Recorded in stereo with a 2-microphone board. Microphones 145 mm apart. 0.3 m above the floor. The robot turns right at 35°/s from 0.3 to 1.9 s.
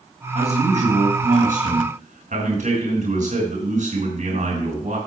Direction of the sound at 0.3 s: 130° right.